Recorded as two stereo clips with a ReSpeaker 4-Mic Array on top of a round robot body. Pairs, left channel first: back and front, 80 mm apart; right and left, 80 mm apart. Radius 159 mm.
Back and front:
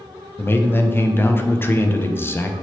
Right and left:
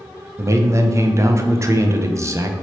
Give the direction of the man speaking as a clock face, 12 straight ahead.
8 o'clock.